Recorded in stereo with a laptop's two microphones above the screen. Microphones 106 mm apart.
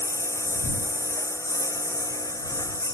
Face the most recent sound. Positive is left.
turn(degrees=30)  # may be behind; listen again after turning